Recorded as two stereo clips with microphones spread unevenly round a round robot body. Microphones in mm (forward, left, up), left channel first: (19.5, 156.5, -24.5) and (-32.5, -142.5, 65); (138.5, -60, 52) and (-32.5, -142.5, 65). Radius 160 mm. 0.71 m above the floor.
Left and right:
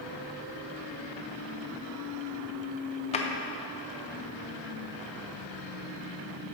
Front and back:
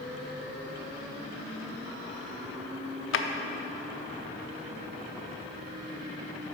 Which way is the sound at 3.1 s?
10° left.